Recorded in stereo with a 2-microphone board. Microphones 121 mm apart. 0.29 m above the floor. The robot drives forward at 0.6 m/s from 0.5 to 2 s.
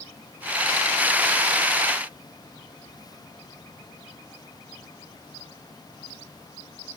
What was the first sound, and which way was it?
Only background noise.